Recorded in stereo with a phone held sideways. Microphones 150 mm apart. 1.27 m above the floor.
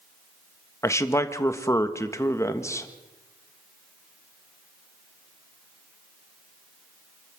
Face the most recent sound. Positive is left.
turn(degrees=20)  # may be behind; listen again after turning